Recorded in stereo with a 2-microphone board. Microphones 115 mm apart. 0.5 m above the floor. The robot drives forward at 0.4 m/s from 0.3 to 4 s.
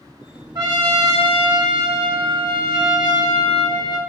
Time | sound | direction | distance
0.6 | a trumpet | 35° right (ahead or behind) | 1.2 m